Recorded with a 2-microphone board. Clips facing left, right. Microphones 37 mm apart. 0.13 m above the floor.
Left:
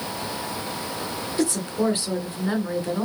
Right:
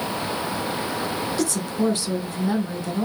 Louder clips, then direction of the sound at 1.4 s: Left 2 dB; 25° left (ahead or behind).